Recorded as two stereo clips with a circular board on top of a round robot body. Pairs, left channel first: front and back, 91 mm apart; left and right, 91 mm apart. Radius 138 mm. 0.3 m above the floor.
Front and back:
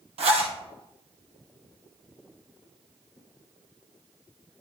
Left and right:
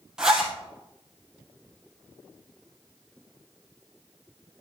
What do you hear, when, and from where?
0.2 s a zipper: 175° right, 2 m